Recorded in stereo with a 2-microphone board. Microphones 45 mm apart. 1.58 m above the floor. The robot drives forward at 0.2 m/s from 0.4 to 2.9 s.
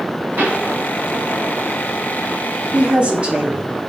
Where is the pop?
60° right (ahead or behind), 2 m.